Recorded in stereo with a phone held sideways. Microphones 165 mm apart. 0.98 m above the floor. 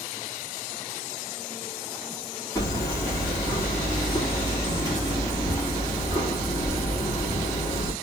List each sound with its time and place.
2.5 s hammering: 20° left (ahead or behind), 1.7 m